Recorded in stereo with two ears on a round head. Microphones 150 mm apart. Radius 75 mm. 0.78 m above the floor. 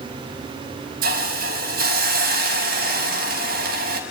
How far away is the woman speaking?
I don't hear a woman speaking.